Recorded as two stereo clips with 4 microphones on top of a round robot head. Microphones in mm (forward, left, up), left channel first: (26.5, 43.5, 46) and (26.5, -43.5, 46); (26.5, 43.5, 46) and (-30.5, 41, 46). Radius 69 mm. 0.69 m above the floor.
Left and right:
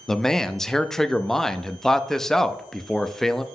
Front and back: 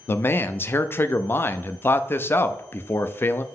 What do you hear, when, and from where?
0.1 s a man speaking: 5° left, 0.5 m